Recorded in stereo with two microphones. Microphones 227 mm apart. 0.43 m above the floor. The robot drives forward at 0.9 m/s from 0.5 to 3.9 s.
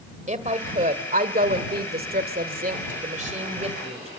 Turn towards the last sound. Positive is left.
turn(degrees=-30)  # may be behind; listen again after turning